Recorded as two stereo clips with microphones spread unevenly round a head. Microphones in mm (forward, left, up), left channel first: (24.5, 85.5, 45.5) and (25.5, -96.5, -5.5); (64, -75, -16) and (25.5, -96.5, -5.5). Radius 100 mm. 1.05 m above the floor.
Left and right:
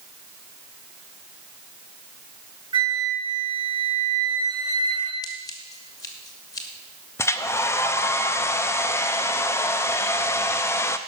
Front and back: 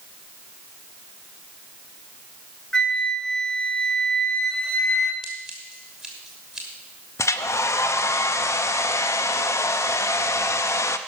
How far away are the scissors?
About 1.0 m.